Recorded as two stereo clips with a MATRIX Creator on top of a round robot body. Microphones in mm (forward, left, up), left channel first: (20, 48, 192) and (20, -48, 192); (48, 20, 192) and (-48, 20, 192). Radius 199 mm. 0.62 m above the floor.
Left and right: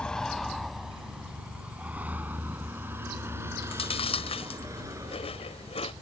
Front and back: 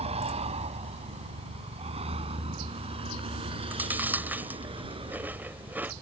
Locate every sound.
0.0 s a vehicle: 170° left; by 6.0 s 145° right
3.6 s chewing: 105° left